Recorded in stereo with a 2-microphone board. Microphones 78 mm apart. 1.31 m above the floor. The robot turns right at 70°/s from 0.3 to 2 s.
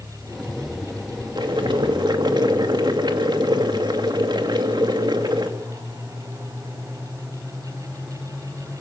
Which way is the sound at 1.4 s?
115° right.